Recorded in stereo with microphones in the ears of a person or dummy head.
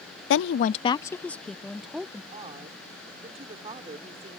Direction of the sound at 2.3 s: 30° right (ahead or behind).